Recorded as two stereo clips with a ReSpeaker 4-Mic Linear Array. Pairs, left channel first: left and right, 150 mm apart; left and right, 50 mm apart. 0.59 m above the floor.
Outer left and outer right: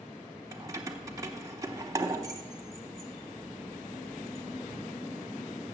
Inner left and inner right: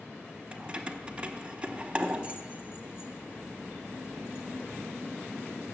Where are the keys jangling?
25° right (ahead or behind), 0.8 m.